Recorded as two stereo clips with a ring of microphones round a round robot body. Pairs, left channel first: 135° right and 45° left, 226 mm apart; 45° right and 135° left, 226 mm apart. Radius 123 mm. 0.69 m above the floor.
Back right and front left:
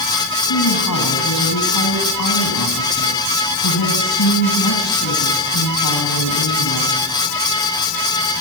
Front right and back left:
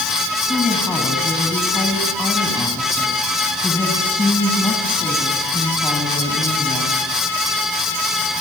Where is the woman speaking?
130° right, 4.5 m.